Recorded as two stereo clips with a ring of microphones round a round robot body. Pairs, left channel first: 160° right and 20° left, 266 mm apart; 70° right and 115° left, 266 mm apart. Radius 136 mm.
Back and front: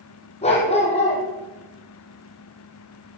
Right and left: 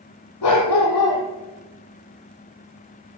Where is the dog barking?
90° right, 4 m.